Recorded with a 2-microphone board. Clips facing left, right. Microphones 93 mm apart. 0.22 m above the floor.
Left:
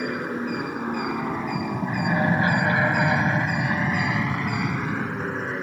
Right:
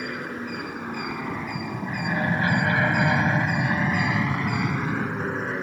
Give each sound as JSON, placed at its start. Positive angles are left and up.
{"t": 0.0, "sound": "an aircraft", "side_deg": 25}